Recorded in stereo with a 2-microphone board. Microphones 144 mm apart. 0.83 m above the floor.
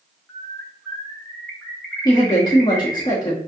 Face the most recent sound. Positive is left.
turn(degrees=30)  # may be behind; listen again after turning